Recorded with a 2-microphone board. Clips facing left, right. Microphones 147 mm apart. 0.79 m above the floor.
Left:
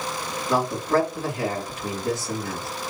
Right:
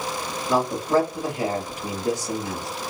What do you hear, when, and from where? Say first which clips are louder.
0.5 s a man speaking: right 1 dB; 15° right (ahead or behind), 1.6 m